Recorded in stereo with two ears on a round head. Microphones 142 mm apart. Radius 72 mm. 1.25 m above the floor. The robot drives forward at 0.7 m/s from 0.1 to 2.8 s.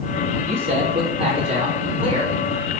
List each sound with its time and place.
0.5 s a man speaking: 60° right (ahead or behind), 2.5 m; by 2.3 s 40° right (ahead or behind), 3.5 m